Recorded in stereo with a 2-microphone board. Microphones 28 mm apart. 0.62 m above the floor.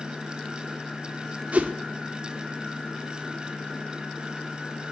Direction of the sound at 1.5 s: 60° right (ahead or behind).